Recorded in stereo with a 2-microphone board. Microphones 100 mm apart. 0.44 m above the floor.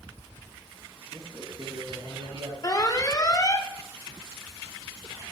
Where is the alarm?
35° left (ahead or behind), 0.6 m.